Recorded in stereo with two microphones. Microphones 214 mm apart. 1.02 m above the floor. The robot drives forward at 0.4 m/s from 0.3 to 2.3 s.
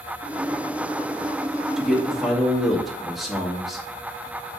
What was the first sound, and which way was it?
A man speaking, centre (ahead or behind).